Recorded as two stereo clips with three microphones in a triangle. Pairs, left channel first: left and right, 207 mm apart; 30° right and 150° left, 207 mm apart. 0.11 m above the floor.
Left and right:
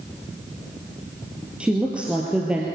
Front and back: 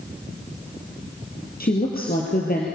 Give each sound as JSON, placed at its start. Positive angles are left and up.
{"t": 1.6, "sound": "a woman speaking", "azimuth_deg": -5, "distance_m": 2.5}